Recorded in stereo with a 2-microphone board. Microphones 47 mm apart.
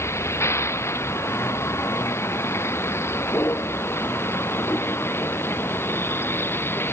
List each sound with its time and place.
0.0 s a vehicle: 65° left (ahead or behind); by 6.9 s 50° left (ahead or behind)